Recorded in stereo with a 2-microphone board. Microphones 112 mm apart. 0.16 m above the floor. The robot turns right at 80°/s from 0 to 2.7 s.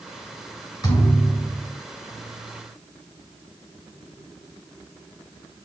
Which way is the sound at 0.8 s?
140° left.